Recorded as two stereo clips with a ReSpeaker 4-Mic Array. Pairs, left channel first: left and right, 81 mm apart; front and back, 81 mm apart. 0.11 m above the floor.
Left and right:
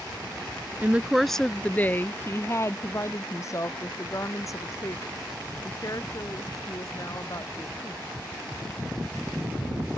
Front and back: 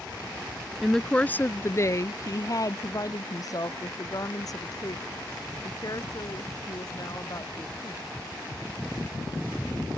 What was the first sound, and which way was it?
A woman speaking, 95° right.